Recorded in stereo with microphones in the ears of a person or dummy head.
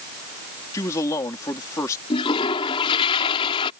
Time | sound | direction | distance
0.7 | a man speaking | 15° left (ahead or behind) | ?
2.1 | a toilet flushing | 30° left (ahead or behind) | ?